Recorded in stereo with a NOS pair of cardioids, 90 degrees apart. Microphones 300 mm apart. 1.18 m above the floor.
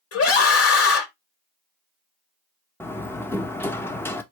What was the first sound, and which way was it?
A scream, 50° left.